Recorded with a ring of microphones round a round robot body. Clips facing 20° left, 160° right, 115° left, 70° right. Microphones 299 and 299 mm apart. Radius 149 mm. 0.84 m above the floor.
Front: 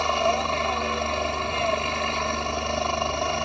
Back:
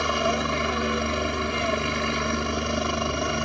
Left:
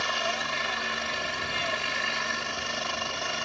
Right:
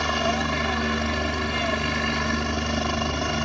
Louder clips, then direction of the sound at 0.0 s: Even, right 9 dB; 90° right.